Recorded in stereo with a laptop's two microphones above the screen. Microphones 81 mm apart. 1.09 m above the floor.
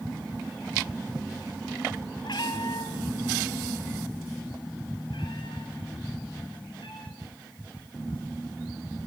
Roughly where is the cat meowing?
Left.